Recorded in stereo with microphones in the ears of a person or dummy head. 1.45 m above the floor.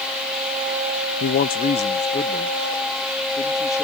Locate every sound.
1.2 s a man speaking: 50° left (ahead or behind); by 3.8 s 10° left (ahead or behind)